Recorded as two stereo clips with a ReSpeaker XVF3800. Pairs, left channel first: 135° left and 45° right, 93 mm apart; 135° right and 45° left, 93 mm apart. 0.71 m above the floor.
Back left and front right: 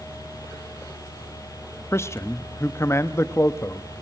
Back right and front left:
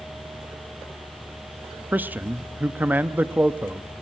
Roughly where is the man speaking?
Left.